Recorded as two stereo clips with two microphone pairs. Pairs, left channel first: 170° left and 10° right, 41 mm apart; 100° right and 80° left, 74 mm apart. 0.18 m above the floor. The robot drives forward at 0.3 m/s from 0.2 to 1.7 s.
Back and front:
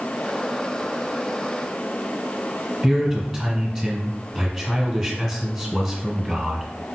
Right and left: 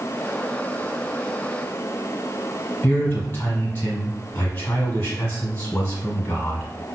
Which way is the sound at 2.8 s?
95° right.